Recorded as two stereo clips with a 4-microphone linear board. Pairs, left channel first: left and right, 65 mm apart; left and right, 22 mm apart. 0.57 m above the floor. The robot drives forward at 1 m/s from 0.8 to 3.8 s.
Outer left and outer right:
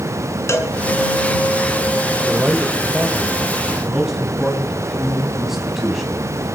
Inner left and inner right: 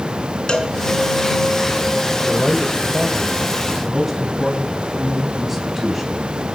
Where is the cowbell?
45° left (ahead or behind), 2.0 m.